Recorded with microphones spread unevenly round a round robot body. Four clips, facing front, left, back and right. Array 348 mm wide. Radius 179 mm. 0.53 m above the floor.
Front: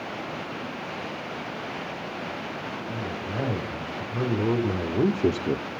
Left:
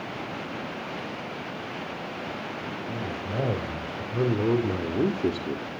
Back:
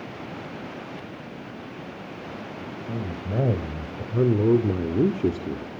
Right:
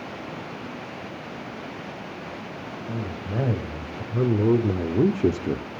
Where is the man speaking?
170° right, 3.5 m; by 5.7 s 55° right, 1.1 m.